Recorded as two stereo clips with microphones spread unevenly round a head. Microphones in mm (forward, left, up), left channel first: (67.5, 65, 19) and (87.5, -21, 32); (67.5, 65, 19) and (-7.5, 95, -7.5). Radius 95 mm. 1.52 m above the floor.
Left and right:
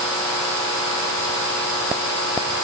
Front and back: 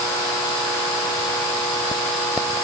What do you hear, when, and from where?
Only background noise.